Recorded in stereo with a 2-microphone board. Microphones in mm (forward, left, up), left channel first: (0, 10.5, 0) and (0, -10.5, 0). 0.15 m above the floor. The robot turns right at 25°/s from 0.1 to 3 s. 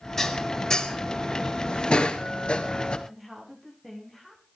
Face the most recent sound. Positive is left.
turn(degrees=0)  # may be behind; listen again after turning